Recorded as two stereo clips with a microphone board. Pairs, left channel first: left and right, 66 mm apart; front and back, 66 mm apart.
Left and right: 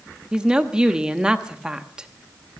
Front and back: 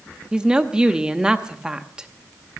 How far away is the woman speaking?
About 0.9 m.